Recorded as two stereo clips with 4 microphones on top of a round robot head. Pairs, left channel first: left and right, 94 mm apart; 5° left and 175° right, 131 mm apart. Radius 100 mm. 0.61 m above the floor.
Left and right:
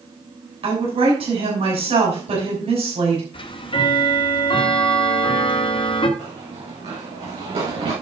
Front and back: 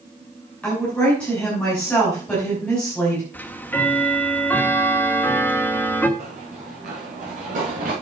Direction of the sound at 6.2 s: 135° right.